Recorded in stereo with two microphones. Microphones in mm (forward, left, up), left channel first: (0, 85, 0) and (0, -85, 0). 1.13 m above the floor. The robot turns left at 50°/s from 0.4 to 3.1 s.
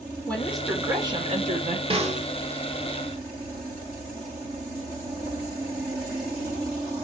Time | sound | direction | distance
0.3 | a woman speaking | 5° left | 3.5 m
1.9 | a snare drum | 35° right (ahead or behind) | 1.8 m